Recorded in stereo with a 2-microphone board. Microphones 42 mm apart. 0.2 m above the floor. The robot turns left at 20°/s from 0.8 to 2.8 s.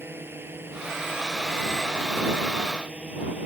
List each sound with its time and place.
0.0 s a drone: 65° right (ahead or behind); by 3.5 s 30° right (ahead or behind)